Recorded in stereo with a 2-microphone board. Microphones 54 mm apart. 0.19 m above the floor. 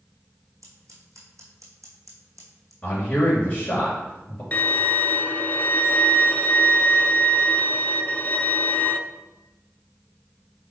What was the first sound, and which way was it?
Scissors, 75° right (ahead or behind).